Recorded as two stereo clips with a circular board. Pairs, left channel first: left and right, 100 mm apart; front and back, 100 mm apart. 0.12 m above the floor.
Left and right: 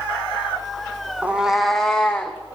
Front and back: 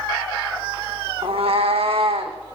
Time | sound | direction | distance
1.2 | a cat meowing | 165° right | 1.2 m